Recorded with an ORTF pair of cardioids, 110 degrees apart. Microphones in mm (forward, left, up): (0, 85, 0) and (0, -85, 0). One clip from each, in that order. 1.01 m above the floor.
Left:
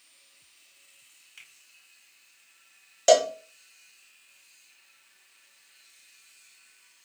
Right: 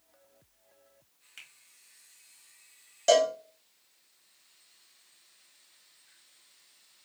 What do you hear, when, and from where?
1.4 s a finger snap: 15° right, 1.2 m
3.1 s a cowbell: 30° left, 0.5 m